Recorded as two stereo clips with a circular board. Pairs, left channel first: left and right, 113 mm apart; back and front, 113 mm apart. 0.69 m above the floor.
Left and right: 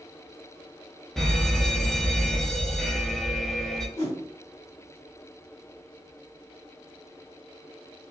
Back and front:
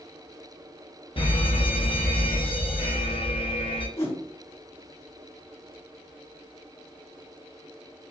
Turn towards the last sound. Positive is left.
turn(degrees=150)